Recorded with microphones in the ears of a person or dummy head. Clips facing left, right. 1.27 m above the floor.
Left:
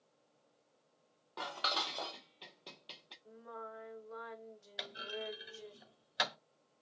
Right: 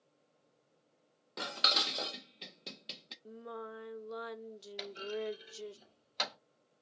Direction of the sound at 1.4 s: 25° right (ahead or behind).